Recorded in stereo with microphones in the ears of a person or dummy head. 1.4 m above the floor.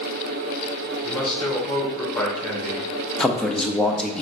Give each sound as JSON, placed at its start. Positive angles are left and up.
{"t": 1.0, "sound": "a man speaking", "side_deg": 0, "distance_m": 1.8}
{"t": 3.2, "sound": "a man speaking", "side_deg": 5, "distance_m": 0.5}